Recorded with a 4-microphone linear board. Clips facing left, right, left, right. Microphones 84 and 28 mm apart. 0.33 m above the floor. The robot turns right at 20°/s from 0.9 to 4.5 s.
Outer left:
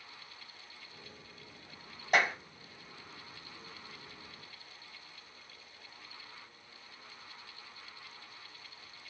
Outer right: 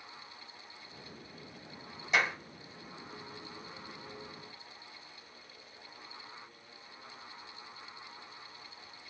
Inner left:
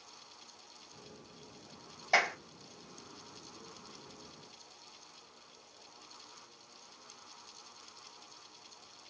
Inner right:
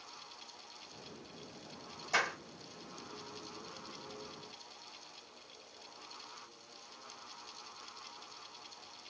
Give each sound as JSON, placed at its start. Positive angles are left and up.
{"t": 2.1, "sound": "a clap", "side_deg": 60, "distance_m": 2.0}